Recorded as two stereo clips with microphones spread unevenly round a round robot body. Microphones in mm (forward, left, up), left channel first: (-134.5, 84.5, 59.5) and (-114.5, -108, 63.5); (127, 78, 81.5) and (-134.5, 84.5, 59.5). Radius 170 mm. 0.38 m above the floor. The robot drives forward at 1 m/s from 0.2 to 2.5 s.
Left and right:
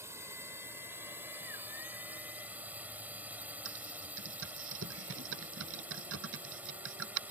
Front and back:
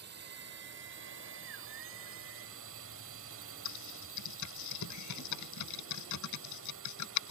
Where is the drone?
155° right; by 7.3 s 165° right.